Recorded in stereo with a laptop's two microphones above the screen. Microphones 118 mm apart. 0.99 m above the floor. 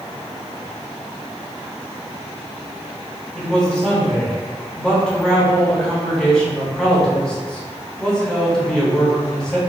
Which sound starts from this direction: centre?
A man speaking, at 3.4 s.